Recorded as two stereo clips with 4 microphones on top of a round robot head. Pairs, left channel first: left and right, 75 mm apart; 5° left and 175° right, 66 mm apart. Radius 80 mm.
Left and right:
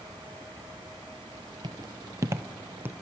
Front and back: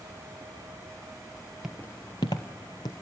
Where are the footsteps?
90° right, 0.6 m; by 2.9 s 25° right, 1.2 m.